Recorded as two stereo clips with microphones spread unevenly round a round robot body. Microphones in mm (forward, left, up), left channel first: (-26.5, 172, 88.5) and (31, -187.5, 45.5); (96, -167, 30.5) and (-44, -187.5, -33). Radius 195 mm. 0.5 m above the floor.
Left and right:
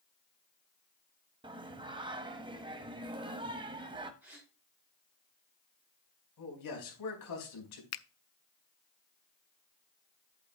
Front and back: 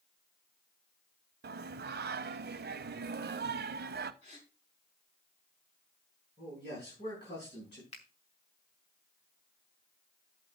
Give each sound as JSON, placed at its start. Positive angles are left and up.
{"t": 1.4, "sound": "singing", "azimuth_deg": -160, "distance_m": 0.6}
{"t": 4.2, "sound": "a gasp", "azimuth_deg": 5, "distance_m": 5.5}
{"t": 6.4, "sound": "a man speaking", "azimuth_deg": 65, "distance_m": 4.5}
{"t": 7.9, "sound": "a finger snap", "azimuth_deg": 75, "distance_m": 0.6}